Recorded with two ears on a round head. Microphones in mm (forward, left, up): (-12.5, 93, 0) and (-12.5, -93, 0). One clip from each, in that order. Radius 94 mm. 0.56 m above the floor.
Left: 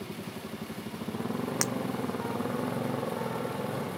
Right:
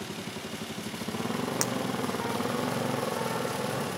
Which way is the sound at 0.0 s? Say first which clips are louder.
Right 3 dB; 65° right (ahead or behind).